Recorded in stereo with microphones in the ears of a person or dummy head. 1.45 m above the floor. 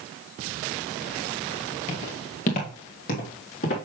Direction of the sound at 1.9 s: 30° left (ahead or behind).